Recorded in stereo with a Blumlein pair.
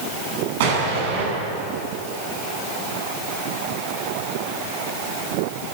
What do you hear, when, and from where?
0.6 s an explosion: 50° right, 7 m